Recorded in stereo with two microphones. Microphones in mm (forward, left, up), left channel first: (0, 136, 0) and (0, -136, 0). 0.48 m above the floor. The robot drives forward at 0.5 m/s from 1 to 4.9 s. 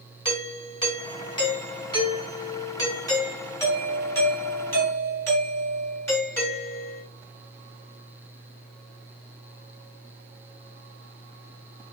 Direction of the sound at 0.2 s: 20° left (ahead or behind).